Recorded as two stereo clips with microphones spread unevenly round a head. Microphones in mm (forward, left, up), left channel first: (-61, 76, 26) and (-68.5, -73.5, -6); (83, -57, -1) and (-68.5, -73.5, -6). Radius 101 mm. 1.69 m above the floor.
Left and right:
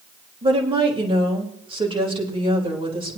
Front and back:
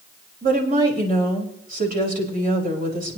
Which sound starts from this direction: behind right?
A woman speaking, at 0.4 s.